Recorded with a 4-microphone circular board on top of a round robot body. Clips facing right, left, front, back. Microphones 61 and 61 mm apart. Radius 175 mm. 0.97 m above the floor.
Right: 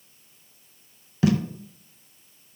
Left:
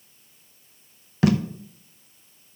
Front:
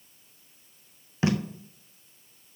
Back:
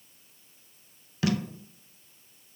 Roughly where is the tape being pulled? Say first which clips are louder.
Left 1 dB, front 2 dB; ahead left.